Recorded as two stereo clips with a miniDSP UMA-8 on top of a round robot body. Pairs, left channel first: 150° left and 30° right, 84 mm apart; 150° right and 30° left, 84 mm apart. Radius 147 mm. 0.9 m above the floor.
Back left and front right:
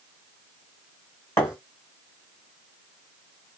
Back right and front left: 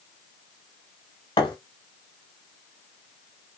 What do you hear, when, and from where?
1.4 s a thud: 160° right, 0.8 m